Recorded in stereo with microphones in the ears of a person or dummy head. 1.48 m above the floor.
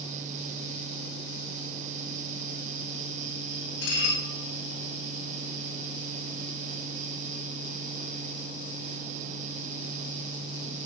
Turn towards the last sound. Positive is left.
turn(degrees=65)  # may be behind; listen again after turning